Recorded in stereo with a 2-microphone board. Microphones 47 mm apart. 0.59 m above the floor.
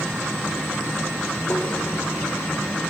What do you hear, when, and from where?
1.5 s tapping: 35° left (ahead or behind), 1.2 m